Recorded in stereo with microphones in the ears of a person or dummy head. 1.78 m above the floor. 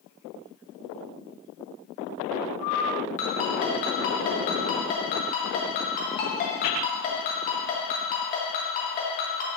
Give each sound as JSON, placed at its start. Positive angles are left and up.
{"t": 3.2, "sound": "a ringtone", "side_deg": 40, "distance_m": 1.4}